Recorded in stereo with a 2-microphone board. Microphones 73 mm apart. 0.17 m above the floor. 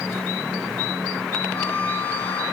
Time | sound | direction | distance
1.5 | a violin | 25° left (ahead or behind) | 5.5 m